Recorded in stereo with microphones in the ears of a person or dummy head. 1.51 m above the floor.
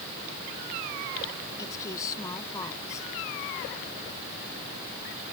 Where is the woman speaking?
20° left (ahead or behind).